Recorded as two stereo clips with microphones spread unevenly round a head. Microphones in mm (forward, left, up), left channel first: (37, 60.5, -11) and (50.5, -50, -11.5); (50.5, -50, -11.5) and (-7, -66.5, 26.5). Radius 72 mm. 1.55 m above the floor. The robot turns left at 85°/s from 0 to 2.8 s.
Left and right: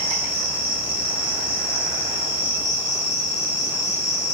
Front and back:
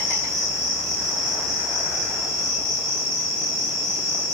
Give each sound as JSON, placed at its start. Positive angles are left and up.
{"t": 0.0, "sound": "an insect", "azimuth_deg": -80, "distance_m": 1.1}